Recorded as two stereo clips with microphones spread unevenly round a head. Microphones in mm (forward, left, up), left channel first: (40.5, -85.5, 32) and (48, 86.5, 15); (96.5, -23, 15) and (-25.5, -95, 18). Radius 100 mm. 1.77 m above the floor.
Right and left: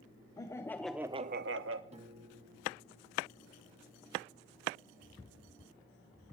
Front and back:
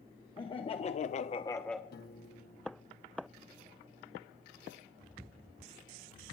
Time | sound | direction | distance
0.4 | laughter | 25° right | 1.4 m
1.9 | a piano | 35° left | 1.5 m